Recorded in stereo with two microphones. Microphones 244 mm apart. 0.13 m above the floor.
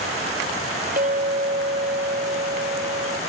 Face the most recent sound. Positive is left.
turn(degrees=-35)  # may be behind; listen again after turning